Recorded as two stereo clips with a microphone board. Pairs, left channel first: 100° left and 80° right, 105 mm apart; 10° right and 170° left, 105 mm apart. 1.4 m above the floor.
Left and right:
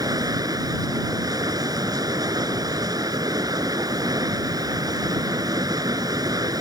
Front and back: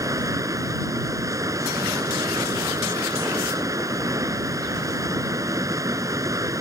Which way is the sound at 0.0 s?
130° right.